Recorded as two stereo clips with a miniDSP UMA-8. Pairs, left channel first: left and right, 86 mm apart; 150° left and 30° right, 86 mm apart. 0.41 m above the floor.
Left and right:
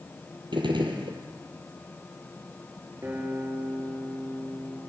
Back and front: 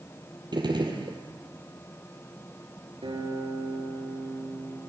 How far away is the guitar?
About 7.5 m.